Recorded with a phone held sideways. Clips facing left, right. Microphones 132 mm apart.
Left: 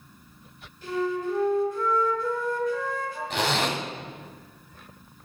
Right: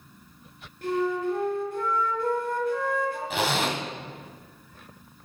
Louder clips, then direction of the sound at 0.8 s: Right 2 dB; 60° right (ahead or behind).